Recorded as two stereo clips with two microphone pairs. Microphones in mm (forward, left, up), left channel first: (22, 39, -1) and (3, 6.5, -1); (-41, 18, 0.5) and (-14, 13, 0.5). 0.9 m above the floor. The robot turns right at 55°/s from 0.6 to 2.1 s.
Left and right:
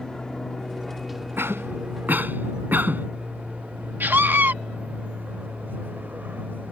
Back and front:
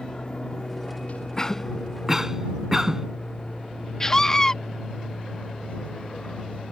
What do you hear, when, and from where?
0.0 s an aircraft: 125° left; by 6.7 s 150° right
1.4 s a cough: 125° right; by 3.1 s 85° right
4.0 s a scream: 125° right